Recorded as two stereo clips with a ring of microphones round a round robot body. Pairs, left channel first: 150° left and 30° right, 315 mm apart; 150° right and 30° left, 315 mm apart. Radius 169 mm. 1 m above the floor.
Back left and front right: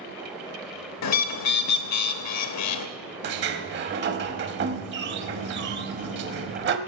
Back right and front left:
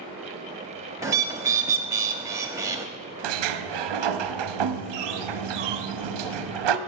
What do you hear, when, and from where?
1.0 s a bird: 110° left, 0.7 m
3.2 s a sliding door: 25° left, 0.7 m